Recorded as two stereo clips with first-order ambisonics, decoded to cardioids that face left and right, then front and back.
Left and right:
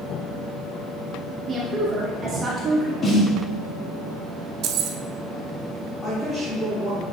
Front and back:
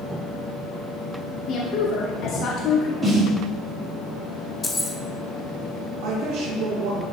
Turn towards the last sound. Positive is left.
turn(degrees=175)